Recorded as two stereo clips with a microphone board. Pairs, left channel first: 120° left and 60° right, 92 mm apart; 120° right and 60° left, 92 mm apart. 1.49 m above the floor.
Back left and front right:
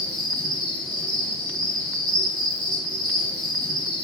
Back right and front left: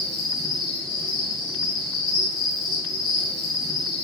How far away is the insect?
About 1.8 m.